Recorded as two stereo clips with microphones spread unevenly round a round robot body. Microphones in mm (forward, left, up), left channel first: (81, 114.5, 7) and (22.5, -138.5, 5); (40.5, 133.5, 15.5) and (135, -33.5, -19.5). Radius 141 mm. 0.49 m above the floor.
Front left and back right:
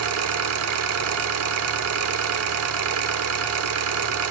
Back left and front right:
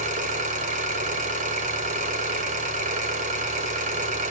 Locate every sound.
0.0 s an engine running: 100° right, 0.9 m